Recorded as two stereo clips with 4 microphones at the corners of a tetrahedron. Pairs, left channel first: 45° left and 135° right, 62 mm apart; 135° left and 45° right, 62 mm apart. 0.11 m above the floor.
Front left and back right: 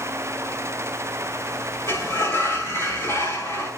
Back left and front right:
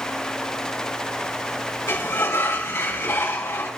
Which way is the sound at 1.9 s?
90° left.